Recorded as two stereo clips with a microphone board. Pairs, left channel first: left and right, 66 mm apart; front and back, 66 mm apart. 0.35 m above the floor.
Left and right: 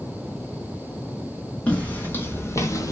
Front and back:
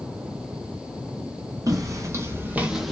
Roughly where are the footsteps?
Behind.